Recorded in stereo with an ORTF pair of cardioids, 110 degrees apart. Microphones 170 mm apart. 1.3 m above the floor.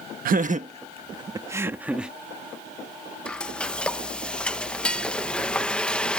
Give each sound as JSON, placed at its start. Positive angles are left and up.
{"t": 0.2, "sound": "laughter", "azimuth_deg": -60}
{"t": 3.2, "sound": "frying", "azimuth_deg": 5}